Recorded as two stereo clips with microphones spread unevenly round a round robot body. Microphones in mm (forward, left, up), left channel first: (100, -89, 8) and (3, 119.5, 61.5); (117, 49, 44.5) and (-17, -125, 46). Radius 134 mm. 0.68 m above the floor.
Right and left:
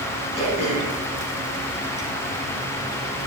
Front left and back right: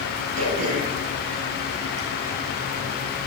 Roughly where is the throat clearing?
Behind right.